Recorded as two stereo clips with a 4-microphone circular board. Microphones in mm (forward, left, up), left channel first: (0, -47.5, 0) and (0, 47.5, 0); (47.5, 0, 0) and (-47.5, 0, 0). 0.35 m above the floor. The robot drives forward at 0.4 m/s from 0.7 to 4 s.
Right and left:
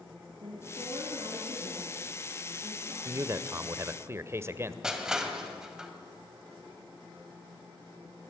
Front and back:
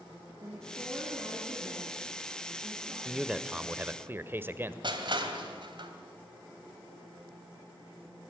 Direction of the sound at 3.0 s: 90° left.